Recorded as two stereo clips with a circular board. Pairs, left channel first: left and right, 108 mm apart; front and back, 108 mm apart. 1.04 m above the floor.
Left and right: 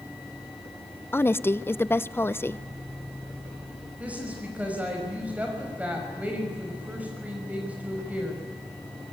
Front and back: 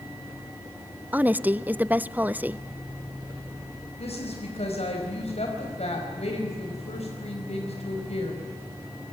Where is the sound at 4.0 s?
15° right, 5 m.